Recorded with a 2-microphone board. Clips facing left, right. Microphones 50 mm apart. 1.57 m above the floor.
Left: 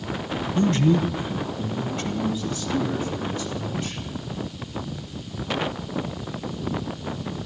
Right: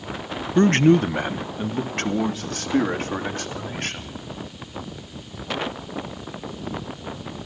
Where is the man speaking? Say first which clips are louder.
Right 5 dB; 55° right (ahead or behind), 0.7 m; by 4.2 s 65° right (ahead or behind), 4 m.